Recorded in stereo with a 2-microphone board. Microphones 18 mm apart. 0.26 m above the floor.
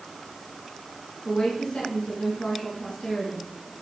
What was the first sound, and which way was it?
A woman speaking, 60° left (ahead or behind).